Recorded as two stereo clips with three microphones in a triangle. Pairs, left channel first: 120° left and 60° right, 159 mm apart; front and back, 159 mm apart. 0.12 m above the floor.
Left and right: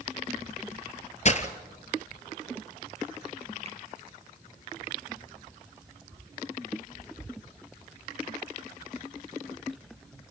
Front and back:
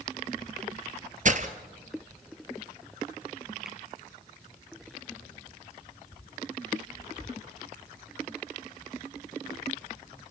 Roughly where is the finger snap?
Right.